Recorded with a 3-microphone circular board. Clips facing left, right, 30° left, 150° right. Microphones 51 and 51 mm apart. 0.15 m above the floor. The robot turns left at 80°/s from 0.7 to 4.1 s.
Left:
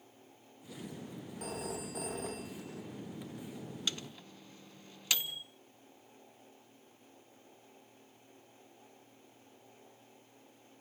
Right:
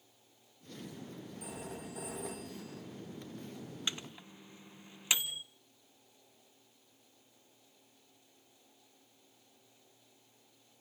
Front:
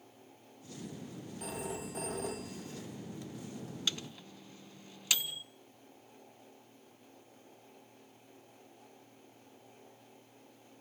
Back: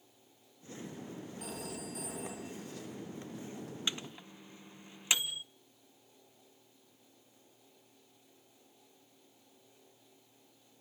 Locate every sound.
1.4 s a phone ringing: 120° left, 4.5 m; by 2.8 s 5° left, 4.5 m
3.9 s a microwave: 115° right, 0.9 m; by 5.4 s 130° right, 0.9 m